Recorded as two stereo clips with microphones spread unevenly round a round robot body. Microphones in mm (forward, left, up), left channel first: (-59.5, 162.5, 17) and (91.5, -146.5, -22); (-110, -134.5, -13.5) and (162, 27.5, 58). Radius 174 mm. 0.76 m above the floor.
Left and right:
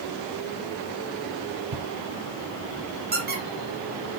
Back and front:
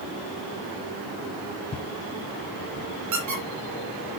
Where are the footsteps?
70° right, 1.0 m; by 2.9 s 115° right, 1.5 m.